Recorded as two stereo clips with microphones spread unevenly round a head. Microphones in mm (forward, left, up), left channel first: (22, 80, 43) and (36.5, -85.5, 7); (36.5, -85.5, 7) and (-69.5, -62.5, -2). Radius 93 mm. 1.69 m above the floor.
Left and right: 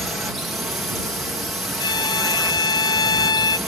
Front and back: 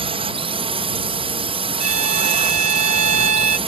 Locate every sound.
0.0 s a drone: 170° right
1.8 s a violin: 160° left